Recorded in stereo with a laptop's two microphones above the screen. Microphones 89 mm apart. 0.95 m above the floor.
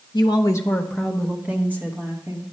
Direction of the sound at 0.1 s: 50° left (ahead or behind).